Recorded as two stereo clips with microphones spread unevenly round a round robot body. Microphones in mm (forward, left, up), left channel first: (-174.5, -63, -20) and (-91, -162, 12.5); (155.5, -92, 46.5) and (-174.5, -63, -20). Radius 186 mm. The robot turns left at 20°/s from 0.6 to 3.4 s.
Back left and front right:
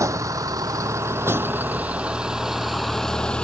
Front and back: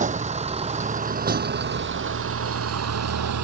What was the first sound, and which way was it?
A vehicle, 115° right.